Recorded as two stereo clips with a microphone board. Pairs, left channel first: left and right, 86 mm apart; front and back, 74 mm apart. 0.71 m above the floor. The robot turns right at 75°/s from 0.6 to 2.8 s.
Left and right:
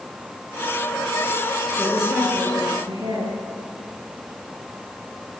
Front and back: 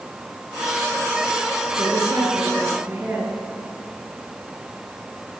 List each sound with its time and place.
1.8 s a woman speaking: 165° left, 10 m; by 3.4 s 120° right, 10 m